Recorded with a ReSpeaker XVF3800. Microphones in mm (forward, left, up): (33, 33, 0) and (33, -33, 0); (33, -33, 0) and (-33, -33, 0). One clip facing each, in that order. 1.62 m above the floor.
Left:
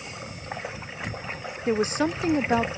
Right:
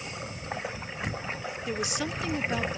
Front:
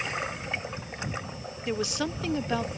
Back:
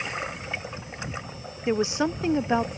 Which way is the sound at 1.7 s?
125° left.